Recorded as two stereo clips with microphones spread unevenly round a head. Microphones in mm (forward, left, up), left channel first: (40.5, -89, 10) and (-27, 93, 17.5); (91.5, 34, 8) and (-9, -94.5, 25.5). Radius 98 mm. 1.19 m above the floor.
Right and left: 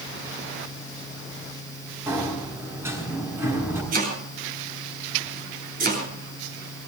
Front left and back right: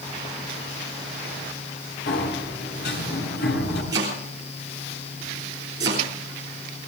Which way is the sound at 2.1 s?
35° left.